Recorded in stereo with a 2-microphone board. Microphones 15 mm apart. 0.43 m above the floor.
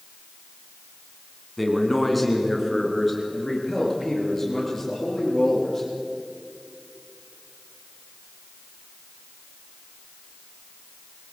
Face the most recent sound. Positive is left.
turn(degrees=20)  # may be behind; listen again after turning